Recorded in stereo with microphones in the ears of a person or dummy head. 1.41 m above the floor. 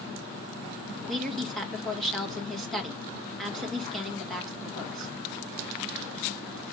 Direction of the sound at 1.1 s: Centre (ahead or behind).